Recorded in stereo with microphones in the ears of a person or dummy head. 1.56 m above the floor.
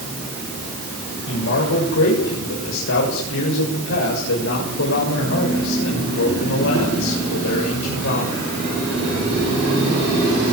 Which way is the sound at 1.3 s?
75° left (ahead or behind).